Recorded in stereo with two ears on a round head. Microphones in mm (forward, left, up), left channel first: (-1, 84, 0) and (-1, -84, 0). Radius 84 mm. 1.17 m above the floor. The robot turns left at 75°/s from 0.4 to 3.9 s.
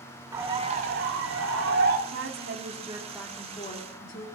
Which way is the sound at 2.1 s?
95° right.